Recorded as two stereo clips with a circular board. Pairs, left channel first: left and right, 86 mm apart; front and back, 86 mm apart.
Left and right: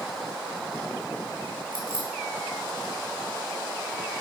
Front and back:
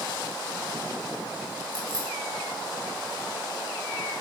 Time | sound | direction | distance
1.7 | keys jangling | 75° left | 3.5 m